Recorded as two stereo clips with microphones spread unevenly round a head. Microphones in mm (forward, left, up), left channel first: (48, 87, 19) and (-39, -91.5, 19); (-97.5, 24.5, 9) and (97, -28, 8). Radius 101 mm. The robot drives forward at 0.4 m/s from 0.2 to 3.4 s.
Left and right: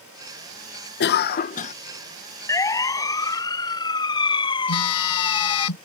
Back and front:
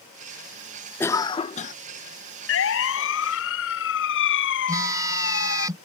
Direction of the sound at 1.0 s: 85° left.